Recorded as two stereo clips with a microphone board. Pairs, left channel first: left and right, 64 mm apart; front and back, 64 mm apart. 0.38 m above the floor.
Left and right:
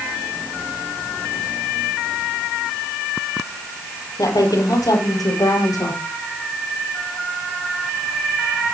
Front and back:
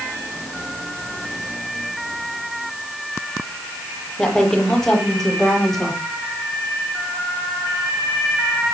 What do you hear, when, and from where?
4.2 s a woman speaking: 85° left, 9.5 m